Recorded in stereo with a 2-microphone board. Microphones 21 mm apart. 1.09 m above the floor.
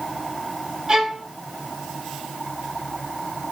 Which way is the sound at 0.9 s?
30° right (ahead or behind).